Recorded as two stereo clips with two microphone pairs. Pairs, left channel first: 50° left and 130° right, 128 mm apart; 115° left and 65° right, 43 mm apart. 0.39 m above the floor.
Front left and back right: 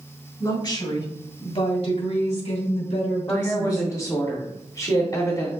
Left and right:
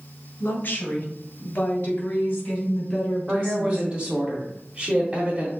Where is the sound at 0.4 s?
100° left, 1.8 m; by 4.0 s 50° left, 4 m.